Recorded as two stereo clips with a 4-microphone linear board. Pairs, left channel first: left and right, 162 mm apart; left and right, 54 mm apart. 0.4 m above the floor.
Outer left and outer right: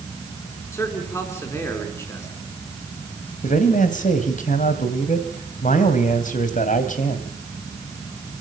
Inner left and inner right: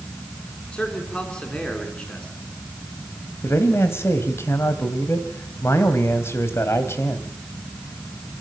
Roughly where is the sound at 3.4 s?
Left.